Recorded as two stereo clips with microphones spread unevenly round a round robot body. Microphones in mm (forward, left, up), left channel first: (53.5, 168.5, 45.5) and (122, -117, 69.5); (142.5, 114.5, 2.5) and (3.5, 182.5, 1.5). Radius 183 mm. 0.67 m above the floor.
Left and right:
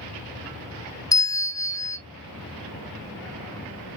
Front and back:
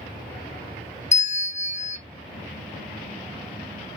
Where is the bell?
25° left, 0.9 m.